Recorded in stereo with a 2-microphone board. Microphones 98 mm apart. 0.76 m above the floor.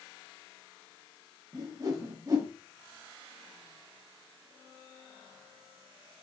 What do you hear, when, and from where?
1.5 s a whoosh: 35° right (ahead or behind), 1.0 m